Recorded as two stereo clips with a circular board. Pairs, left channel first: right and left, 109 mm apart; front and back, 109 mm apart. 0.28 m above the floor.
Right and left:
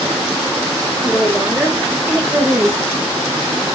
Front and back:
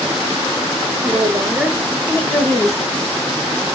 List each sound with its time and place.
1.0 s a woman speaking: 175° left, 1.1 m; by 3.0 s 25° left, 1.4 m